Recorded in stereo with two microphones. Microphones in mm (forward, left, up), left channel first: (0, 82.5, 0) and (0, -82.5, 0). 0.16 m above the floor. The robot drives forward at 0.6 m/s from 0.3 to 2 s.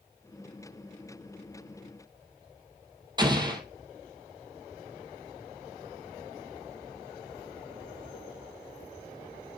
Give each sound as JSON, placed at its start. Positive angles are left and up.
{"t": 3.2, "sound": "an explosion", "side_deg": -25, "distance_m": 1.3}